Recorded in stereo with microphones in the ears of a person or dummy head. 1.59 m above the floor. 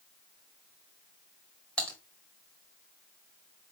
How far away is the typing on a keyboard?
About 1.2 m.